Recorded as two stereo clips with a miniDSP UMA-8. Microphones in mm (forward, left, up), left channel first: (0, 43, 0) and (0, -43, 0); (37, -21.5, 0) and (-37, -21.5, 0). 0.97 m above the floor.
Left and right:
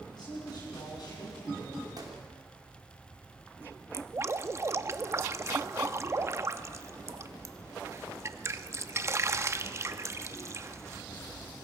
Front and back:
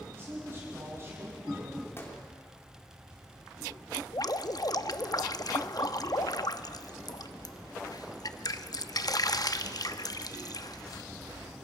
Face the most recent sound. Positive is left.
turn(degrees=-35)